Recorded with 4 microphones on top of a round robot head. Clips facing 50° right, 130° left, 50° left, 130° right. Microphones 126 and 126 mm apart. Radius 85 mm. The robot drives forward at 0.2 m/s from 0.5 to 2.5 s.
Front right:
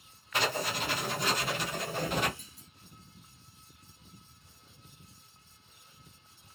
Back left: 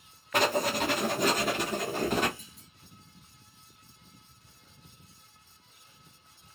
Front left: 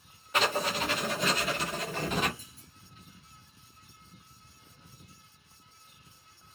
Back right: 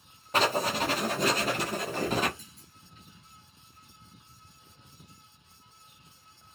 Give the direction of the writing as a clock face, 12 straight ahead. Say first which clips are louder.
Back left 6 dB, back right 3 dB; 6 o'clock.